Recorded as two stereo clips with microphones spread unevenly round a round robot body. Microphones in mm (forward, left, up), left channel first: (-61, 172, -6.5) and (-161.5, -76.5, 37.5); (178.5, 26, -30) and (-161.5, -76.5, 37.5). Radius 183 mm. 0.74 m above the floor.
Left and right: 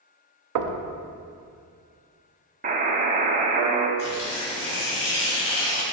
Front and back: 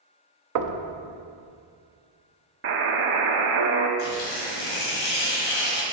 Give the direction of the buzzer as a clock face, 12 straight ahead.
5 o'clock.